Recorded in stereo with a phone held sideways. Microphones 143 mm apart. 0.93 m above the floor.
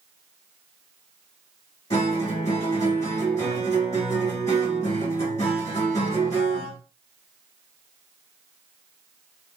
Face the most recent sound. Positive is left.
turn(degrees=50)  # may be behind; listen again after turning